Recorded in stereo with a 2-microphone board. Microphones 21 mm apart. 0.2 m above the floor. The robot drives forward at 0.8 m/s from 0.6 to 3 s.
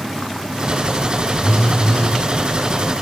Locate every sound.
1.4 s a phone buzzing: 65° left (ahead or behind), 1.4 m; by 2.2 s 50° left (ahead or behind), 1.8 m